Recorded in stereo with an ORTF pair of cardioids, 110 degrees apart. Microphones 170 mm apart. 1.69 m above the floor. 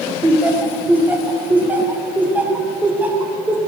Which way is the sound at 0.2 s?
10° right.